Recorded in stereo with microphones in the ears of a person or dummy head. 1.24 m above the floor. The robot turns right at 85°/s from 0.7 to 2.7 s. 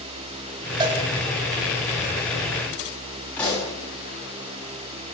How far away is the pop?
About 8.5 m.